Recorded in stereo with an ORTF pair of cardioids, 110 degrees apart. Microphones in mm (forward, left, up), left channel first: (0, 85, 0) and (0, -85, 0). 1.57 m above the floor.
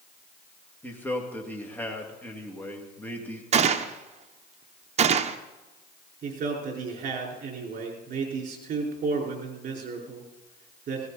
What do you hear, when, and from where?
0.8 s a man speaking: 10° left, 2.5 m
3.5 s a gunshot: 40° right, 0.9 m
6.2 s a man speaking: 50° right, 5 m